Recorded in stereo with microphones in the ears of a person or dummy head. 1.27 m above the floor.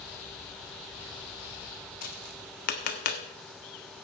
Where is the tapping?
55° left (ahead or behind), 1.3 m.